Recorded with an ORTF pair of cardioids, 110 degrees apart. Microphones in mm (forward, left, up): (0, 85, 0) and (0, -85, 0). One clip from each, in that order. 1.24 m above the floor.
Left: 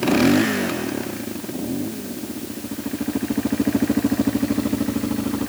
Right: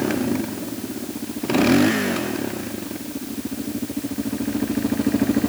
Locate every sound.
Only background noise.